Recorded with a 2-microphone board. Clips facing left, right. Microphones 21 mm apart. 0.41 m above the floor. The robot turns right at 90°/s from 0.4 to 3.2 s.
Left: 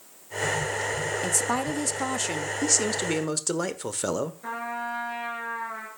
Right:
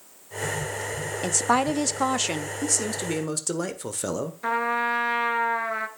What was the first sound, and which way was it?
A woman speaking, 15° right (ahead or behind).